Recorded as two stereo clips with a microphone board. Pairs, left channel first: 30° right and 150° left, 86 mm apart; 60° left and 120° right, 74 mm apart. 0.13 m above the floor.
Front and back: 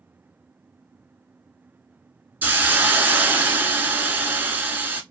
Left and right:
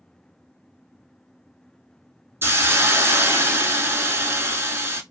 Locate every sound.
2.4 s a hiss: 155° right, 0.6 m